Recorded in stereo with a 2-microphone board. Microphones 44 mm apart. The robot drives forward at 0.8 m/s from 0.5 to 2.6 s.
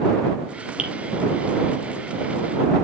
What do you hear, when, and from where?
0.8 s dripping: 25° right (ahead or behind), 3.5 m; by 0.9 s 20° right (ahead or behind), 3.5 m